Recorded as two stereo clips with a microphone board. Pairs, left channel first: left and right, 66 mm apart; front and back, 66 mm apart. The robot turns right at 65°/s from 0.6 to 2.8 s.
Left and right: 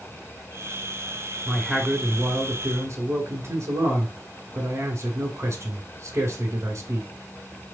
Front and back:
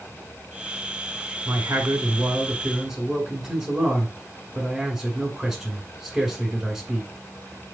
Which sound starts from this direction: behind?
A man speaking, at 1.4 s.